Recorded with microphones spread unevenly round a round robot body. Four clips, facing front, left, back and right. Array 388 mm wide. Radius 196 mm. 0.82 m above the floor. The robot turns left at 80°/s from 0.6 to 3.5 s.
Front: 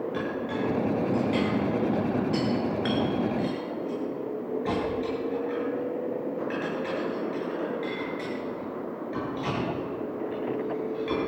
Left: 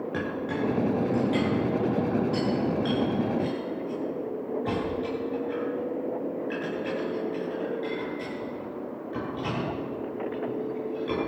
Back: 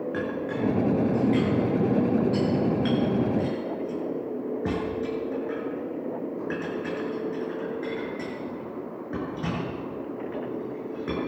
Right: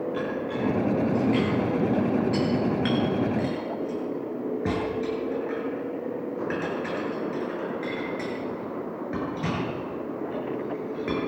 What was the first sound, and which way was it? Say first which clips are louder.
A clink: right 1 dB, back 1 dB; 105° left.